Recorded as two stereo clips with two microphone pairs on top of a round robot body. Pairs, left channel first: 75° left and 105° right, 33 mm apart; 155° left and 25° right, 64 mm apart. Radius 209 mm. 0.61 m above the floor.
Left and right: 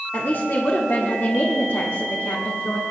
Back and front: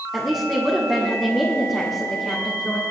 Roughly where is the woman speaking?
Left.